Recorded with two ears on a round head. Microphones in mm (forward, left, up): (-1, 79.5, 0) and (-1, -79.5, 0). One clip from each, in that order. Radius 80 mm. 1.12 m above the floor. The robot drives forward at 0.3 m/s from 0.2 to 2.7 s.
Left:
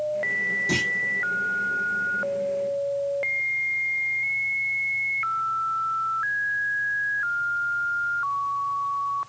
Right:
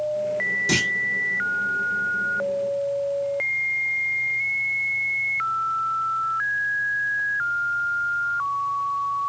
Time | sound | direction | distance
0.7 | a clunk | 30° right (ahead or behind) | 0.8 m